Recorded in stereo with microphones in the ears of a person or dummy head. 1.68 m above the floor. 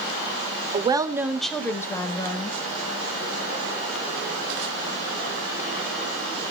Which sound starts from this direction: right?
A woman speaking, at 0.7 s.